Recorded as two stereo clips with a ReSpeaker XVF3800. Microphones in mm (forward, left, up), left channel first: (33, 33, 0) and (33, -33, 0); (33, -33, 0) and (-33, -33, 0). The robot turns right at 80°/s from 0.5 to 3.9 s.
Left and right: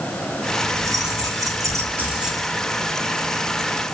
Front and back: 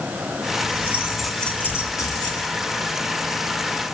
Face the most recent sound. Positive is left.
turn(degrees=120)